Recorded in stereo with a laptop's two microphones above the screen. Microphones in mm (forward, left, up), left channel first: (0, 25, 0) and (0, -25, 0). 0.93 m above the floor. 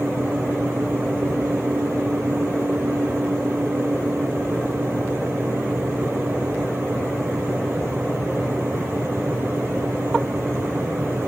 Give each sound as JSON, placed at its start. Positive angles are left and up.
{"t": 0.0, "sound": "a fan", "side_deg": -55}